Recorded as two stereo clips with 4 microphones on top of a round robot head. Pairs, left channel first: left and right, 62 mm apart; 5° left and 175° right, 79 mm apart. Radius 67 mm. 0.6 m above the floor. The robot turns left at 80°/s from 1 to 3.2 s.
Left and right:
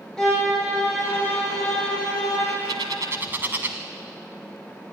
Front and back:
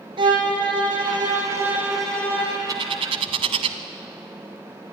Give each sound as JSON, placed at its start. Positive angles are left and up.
{"t": 0.2, "sound": "a violin", "azimuth_deg": 170, "distance_m": 5.0}
{"t": 2.7, "sound": "a bird", "azimuth_deg": -120, "distance_m": 0.7}